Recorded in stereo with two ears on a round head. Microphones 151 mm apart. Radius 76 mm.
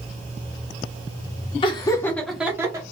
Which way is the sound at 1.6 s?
30° left (ahead or behind).